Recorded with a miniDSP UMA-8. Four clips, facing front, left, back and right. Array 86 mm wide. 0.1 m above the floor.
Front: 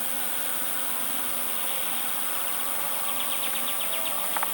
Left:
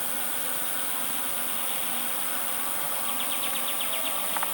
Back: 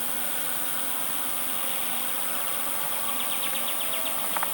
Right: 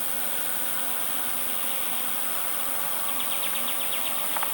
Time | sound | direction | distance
0.0 | an insect | 50° right | ?